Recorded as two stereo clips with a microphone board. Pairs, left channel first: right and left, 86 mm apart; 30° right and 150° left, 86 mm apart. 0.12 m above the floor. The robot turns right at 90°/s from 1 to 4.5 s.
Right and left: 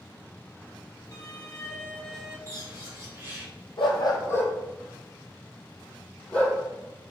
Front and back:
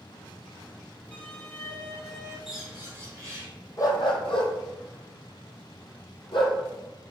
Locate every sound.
1.1 s a violin: 100° right, 1.1 m; by 2.4 s 15° left, 1.1 m
2.5 s a bird: 65° left, 2.0 m; by 3.5 s 155° left, 2.0 m
3.8 s a dog barking: 80° right, 1.0 m; by 6.6 s 15° right, 1.0 m